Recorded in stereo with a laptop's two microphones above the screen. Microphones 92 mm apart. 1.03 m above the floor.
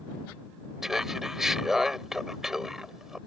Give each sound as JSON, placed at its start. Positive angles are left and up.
{"t": 0.8, "sound": "laughter", "side_deg": -5}